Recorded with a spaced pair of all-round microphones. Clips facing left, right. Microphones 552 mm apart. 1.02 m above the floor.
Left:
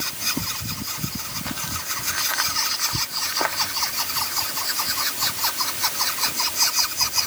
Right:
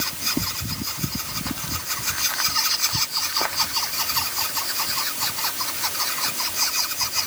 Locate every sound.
Only background noise.